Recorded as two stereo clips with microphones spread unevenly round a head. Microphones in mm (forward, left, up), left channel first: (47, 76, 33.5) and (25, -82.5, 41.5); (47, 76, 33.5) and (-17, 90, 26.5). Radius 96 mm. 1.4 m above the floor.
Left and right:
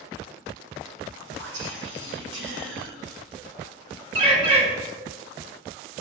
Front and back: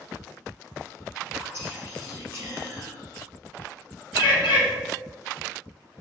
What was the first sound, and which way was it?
Whispering, 90° right.